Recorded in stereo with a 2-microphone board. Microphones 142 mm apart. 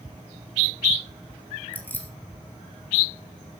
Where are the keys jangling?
15° left (ahead or behind), 3 m.